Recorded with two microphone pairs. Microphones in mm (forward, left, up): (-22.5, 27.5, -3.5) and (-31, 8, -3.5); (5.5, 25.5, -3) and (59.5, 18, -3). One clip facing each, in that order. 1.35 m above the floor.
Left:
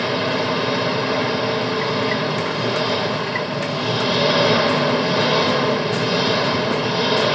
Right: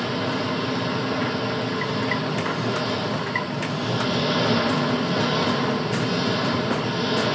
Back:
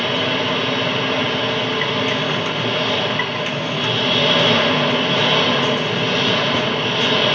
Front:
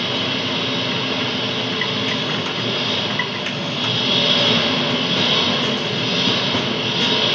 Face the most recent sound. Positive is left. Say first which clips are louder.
# left 5 dB, back 3 dB
turn(degrees=100)